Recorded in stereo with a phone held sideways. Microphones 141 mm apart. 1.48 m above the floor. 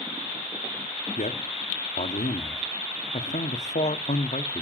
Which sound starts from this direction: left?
A man speaking, at 1.2 s.